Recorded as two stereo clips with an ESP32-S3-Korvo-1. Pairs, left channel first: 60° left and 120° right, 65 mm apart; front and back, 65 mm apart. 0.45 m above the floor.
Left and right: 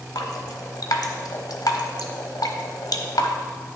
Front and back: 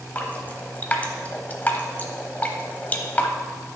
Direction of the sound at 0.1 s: 65° left.